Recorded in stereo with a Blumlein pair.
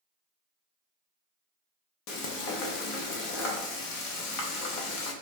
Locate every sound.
2.1 s frying: 35° left, 0.8 m